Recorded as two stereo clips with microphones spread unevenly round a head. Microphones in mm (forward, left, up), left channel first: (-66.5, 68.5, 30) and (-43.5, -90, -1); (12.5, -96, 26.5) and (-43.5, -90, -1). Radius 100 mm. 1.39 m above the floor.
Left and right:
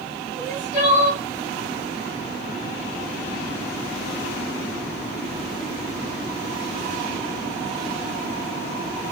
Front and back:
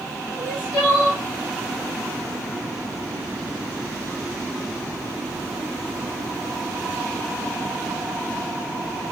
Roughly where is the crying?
Ahead.